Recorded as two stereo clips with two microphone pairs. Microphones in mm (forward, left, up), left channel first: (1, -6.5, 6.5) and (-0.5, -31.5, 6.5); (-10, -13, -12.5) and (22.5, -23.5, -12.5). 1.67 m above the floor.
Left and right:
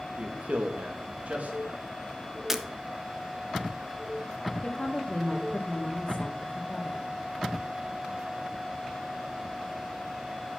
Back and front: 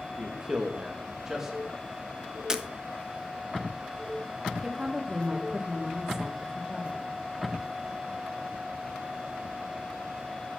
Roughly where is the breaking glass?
Ahead right.